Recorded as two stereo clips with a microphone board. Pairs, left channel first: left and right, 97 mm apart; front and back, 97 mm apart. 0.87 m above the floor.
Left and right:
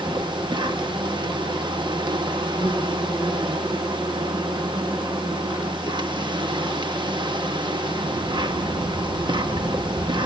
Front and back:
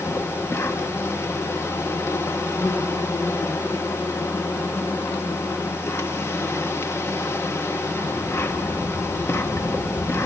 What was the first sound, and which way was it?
An insect, 60° right.